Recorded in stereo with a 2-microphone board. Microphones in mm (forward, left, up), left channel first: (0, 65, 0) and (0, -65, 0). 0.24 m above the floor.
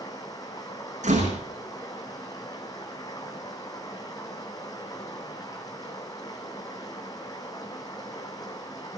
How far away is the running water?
About 2.5 m.